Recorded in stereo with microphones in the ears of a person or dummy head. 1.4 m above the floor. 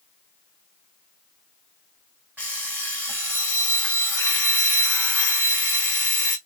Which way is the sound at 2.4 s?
5° right (ahead or behind).